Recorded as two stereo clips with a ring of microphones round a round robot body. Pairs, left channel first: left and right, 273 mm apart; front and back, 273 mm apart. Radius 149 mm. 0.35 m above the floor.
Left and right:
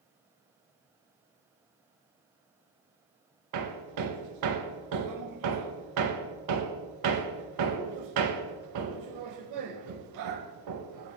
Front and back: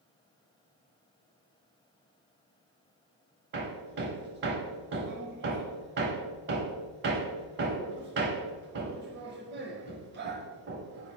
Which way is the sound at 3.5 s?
120° right.